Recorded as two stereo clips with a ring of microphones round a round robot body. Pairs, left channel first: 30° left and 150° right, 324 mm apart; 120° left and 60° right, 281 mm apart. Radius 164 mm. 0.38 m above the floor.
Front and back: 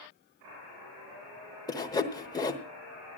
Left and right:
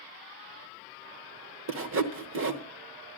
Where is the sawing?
45° right, 1.1 m.